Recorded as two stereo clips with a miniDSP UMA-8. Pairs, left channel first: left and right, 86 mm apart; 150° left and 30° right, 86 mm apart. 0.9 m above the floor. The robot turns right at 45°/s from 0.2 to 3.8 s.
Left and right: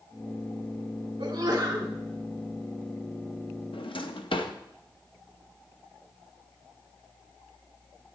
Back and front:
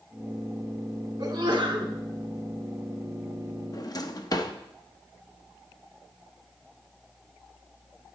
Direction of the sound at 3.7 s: 100° left.